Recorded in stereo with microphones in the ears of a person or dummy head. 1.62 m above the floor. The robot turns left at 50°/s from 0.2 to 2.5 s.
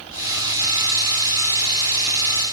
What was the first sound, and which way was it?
Only background noise.